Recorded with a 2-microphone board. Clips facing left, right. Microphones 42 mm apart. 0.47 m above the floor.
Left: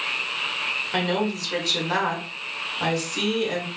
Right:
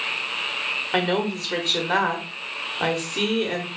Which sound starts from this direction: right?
A woman speaking, at 0.9 s.